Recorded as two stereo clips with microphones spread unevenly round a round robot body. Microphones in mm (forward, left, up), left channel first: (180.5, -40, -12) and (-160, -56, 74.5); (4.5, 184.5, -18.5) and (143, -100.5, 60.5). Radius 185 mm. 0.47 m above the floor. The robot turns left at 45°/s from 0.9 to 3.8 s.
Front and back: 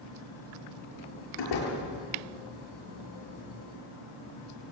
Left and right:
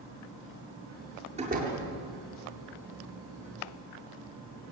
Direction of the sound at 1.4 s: 5° left.